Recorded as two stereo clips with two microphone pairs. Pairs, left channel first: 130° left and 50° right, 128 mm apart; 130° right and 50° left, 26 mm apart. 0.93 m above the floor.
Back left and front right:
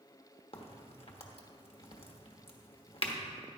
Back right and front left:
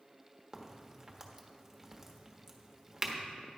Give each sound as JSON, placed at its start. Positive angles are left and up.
{"t": 0.5, "sound": "a crack", "azimuth_deg": 125, "distance_m": 1.2}